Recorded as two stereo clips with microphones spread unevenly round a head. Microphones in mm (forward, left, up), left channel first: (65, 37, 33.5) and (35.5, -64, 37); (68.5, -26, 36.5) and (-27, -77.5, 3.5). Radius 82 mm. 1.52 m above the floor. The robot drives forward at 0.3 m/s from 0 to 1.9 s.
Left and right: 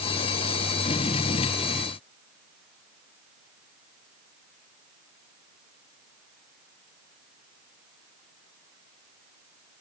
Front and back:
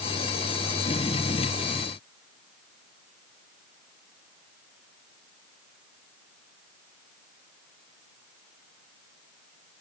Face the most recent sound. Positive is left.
No sound to turn to.